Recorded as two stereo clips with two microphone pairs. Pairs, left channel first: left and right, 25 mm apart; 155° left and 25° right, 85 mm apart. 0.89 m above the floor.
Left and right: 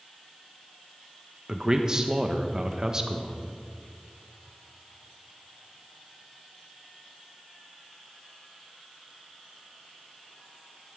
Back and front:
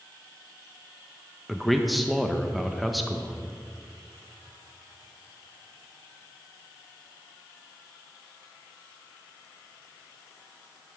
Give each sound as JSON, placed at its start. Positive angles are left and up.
{"t": 1.5, "sound": "a man speaking", "azimuth_deg": -110, "distance_m": 0.7}